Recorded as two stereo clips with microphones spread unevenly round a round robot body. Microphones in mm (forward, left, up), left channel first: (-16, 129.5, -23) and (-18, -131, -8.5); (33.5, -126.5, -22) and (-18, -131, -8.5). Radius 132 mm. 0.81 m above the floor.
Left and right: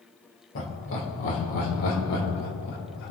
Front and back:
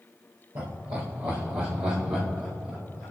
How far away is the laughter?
About 3 m.